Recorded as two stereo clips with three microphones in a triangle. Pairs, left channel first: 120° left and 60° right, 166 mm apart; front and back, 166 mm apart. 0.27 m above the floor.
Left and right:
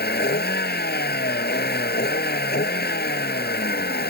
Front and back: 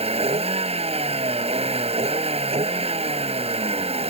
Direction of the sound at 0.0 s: 125° left.